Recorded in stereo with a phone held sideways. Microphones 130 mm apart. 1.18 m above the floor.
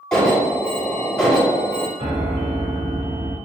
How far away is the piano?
About 2.5 m.